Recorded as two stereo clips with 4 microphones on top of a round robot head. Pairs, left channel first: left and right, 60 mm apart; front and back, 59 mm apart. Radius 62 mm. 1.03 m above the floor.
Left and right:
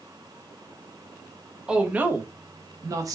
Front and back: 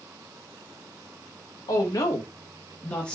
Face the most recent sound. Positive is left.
turn(degrees=-80)